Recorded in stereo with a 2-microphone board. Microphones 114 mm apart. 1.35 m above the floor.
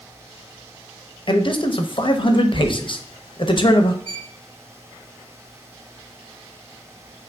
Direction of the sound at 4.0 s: 60° right (ahead or behind).